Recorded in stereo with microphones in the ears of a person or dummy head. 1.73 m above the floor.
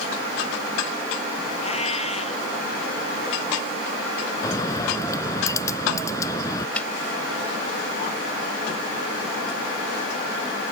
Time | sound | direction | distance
1.6 | a cat meowing | 35° left (ahead or behind) | ?
4.4 | a bird | 20° left (ahead or behind) | ?
6.8 | a snare drum | 10° left (ahead or behind) | ?